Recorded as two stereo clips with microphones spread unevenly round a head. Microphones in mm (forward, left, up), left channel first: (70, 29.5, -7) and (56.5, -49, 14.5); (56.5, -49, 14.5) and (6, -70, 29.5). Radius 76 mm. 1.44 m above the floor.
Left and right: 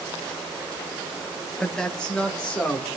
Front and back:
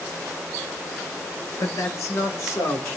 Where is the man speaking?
5° right, 1.1 m; by 2.9 s 5° left, 2.5 m.